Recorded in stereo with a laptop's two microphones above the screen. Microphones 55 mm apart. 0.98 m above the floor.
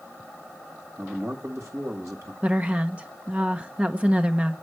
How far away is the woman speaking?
About 0.7 m.